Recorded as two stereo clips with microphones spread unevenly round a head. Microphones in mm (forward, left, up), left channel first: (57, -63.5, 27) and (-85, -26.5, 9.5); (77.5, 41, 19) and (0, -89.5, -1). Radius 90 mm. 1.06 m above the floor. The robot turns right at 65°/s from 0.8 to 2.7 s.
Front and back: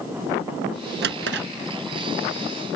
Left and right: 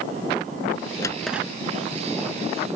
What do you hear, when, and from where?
1.0 s a drawer: 130° left; by 1.5 s 160° left